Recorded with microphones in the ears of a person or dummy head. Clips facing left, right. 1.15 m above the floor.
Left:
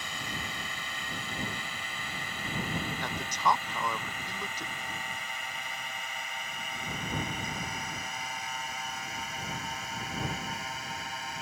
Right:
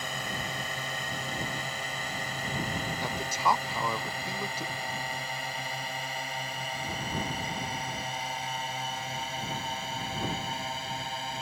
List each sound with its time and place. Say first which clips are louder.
0.0 s a drone: right 4 dB; 40° right (ahead or behind); by 11.4 s 25° right (ahead or behind)
3.0 s a man speaking: right 1 dB; 10° right (ahead or behind)